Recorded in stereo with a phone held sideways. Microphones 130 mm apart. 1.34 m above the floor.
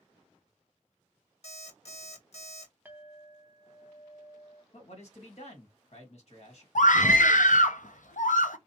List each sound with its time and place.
1.4 s an alarm clock: 55° left (ahead or behind), 1.0 m
2.9 s a clink: 15° right (ahead or behind), 0.7 m
4.7 s a man speaking: 60° left (ahead or behind), 1.7 m
6.8 s a scream: 80° left, 0.6 m